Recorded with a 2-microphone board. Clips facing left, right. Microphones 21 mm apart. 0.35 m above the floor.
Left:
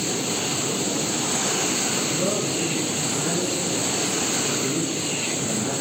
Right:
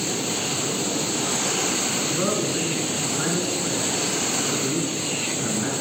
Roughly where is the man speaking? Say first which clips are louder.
Even; right.